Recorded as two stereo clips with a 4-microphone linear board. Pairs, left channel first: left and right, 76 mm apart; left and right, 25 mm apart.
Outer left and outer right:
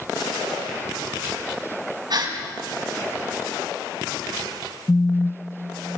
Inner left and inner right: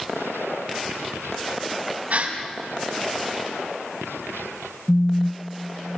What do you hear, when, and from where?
2.1 s a gasp: 60° right (ahead or behind), 6 m
4.9 s a phone buzzing: 30° left (ahead or behind), 0.9 m